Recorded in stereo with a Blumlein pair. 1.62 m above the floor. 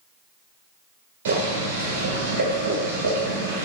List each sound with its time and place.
1.2 s boiling: 55° right, 1.7 m